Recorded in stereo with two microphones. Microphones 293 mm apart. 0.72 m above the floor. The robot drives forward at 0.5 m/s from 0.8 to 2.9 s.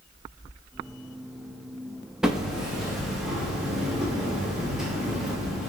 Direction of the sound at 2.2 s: Centre (ahead or behind).